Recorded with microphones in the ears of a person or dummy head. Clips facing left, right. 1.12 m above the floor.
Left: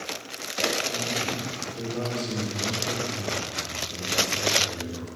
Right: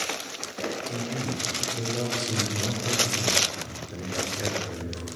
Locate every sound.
0.9 s a man speaking: 10° right (ahead or behind), 3 m